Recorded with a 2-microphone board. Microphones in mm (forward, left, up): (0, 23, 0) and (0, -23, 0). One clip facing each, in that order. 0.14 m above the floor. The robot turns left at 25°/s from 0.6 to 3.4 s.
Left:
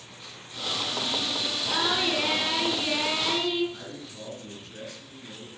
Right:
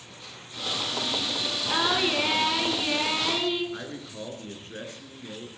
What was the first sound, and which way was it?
Singing, 15° right (ahead or behind).